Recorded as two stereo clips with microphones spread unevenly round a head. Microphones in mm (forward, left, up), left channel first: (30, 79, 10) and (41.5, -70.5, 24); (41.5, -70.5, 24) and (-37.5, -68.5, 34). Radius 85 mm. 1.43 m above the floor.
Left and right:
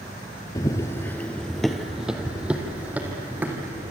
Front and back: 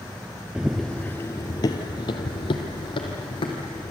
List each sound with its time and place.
0.6 s running footsteps: 140° left, 1.5 m; by 3.9 s 10° right, 4.5 m